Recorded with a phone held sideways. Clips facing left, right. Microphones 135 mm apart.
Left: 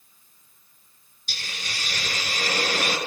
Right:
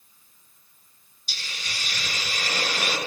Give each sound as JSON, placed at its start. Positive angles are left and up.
{"t": 1.3, "sound": "a hiss", "side_deg": 55, "distance_m": 9.5}